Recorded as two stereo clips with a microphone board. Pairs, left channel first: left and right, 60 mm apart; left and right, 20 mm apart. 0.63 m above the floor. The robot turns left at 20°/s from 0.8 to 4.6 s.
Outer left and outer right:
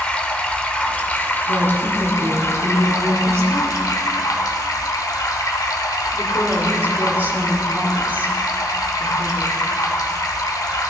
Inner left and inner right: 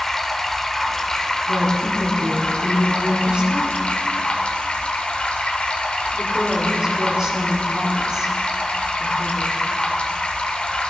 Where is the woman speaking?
65° right (ahead or behind), 1.4 m; by 9.6 s 30° right (ahead or behind), 1.4 m.